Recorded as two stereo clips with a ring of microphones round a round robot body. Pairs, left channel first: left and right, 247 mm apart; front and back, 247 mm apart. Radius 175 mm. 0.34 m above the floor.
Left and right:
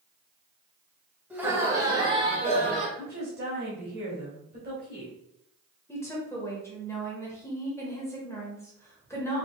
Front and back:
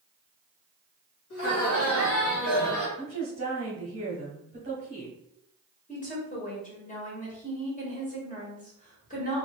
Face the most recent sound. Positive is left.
turn(degrees=20)